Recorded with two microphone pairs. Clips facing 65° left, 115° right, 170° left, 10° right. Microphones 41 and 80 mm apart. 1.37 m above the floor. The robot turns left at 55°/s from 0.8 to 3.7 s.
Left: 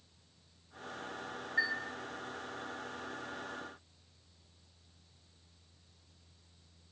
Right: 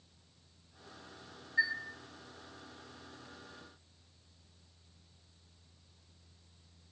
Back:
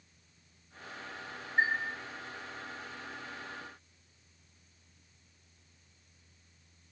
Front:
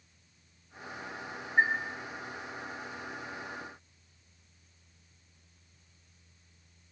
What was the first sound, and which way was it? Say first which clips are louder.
A chime: right 1 dB, front 3 dB; straight ahead.